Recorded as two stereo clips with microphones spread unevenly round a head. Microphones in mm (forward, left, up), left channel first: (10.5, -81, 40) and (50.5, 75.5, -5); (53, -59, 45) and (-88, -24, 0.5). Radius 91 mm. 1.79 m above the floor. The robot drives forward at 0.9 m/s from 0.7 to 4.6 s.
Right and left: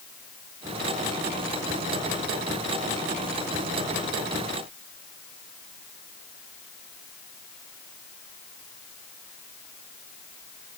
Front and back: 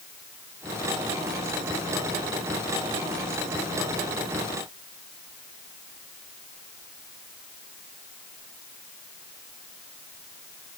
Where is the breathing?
No breathing in this recording.